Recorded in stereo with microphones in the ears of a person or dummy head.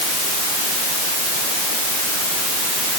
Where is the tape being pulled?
I don't hear tape being pulled.